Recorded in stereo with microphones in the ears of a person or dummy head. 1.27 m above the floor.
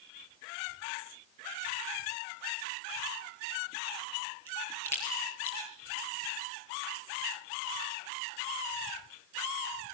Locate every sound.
4.5 s a crack: 10° left (ahead or behind), 5.5 m